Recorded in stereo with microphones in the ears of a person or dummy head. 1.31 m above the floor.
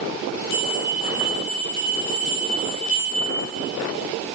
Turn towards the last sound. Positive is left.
turn(degrees=60)  # may be behind; listen again after turning